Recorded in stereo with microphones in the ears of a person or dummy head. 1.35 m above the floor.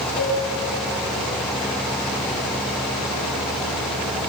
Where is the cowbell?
80° left, 8 m.